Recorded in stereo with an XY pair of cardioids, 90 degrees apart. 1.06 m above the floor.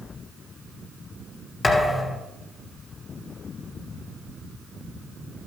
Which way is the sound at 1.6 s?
35° left.